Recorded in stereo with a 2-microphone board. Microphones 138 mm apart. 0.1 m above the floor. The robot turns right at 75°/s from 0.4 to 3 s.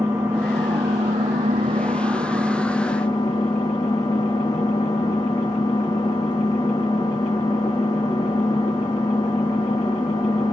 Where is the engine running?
160° right, 1.8 m; by 10.5 s 35° left, 1.8 m.